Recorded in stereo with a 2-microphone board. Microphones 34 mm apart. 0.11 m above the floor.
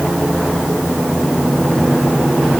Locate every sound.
Only background noise.